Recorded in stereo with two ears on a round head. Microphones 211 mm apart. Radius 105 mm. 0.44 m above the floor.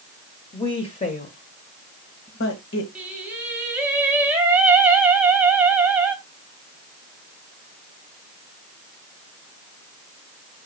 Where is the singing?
5° right (ahead or behind), 3 m.